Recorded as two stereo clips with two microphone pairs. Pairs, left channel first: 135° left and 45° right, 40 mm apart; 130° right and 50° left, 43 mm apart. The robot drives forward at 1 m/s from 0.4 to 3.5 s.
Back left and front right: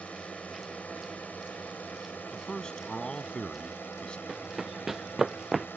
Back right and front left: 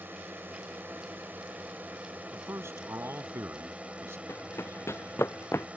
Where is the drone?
85° left; by 5.8 s 105° left.